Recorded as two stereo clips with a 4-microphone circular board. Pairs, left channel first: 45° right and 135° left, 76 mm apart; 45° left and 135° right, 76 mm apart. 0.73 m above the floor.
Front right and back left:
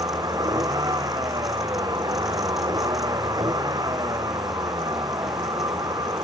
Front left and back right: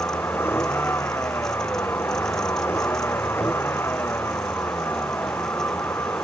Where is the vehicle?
105° left.